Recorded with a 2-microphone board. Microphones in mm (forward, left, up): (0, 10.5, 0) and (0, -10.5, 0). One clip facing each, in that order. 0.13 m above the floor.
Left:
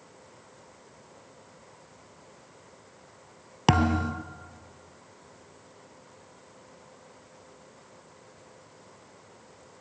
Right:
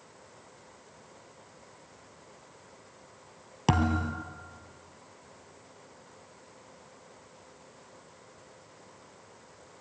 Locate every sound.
3.7 s a thud: 30° left (ahead or behind), 1.1 m